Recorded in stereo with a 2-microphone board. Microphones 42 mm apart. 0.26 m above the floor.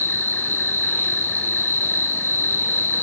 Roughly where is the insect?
Left.